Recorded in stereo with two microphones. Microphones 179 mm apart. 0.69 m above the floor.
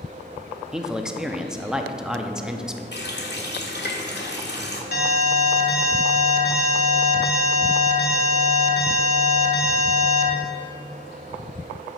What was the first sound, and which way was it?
A man speaking, 5° right (ahead or behind).